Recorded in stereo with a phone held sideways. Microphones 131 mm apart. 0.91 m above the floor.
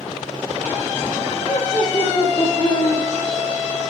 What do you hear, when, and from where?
1.4 s laughter: 65° left (ahead or behind), 1.6 m; by 3.0 s 55° left (ahead or behind), 2.5 m